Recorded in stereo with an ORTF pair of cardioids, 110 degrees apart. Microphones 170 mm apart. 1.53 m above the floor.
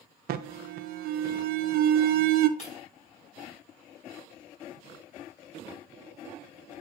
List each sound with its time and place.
0.3 s an alarm: 65° right, 0.7 m
2.6 s breaking glass: 40° left, 4.5 m